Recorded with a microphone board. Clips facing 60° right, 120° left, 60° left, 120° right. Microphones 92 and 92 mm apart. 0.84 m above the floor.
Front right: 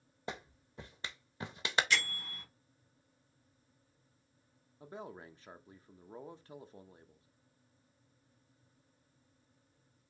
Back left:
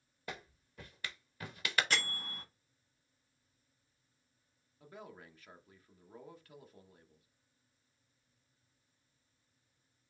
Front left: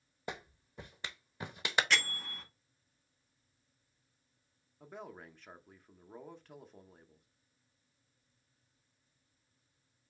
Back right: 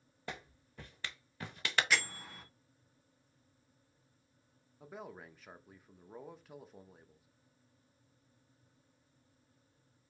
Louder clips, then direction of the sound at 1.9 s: Front right 2 dB, front left 1 dB; 155° left.